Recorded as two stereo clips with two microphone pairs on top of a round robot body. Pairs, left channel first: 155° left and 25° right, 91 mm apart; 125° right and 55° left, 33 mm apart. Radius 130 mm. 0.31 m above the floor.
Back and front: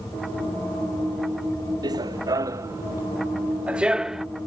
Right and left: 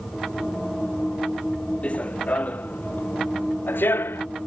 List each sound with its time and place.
1.8 s running footsteps: 70° right; by 4.2 s 110° right